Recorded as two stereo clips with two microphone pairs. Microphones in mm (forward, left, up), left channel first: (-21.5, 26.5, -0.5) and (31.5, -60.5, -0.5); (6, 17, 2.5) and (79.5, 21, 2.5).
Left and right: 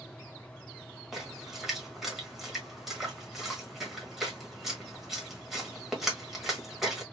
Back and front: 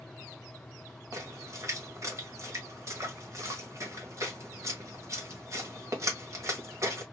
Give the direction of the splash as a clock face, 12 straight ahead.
11 o'clock.